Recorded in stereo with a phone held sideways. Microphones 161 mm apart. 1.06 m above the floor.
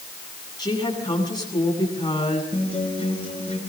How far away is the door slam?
I don't hear a door slam.